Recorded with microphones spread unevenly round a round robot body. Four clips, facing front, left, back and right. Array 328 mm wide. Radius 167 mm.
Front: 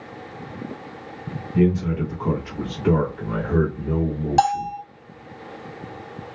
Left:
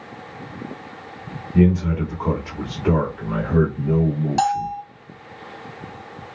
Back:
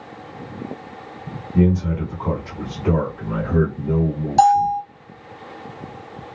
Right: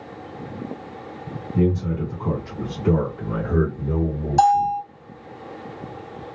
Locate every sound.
1.5 s a man speaking: 90° left, 1.5 m; by 4.8 s 55° right, 2 m
4.4 s a bell: 35° right, 2 m